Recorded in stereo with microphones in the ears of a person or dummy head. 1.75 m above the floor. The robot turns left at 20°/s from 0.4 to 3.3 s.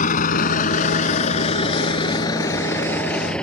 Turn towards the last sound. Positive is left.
turn(degrees=5)  # may be behind; listen again after turning